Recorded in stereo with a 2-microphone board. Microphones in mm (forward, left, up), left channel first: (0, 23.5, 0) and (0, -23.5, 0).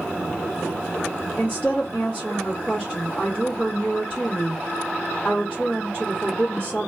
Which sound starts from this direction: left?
A woman speaking, at 1.4 s.